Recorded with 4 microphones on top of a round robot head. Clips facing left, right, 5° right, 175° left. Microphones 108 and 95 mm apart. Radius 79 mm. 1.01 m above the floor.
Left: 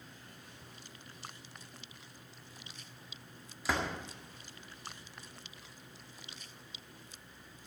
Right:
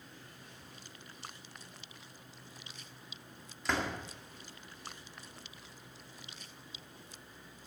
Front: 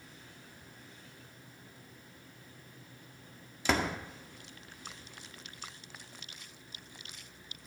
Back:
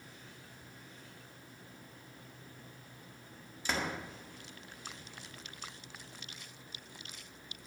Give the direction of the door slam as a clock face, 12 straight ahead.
12 o'clock.